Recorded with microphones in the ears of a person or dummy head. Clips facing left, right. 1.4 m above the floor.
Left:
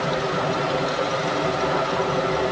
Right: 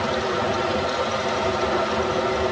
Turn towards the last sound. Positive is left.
No sound to turn to.